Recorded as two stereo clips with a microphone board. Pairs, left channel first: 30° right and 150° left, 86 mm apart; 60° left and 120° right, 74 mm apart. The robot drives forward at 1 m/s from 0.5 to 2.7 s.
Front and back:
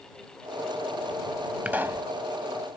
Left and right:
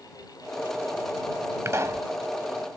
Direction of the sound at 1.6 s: 145° right.